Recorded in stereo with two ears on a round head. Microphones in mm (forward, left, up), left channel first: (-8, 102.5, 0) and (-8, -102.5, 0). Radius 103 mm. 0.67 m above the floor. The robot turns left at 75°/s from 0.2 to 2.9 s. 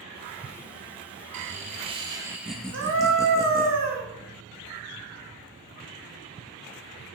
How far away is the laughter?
About 0.6 m.